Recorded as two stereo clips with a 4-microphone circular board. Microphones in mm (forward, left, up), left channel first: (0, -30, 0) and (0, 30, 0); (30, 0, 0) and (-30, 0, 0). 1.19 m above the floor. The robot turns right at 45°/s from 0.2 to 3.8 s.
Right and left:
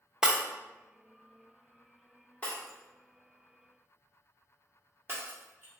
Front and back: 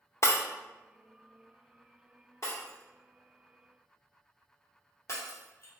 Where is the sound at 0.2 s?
10° left, 0.6 m; by 0.4 s 20° left, 0.6 m.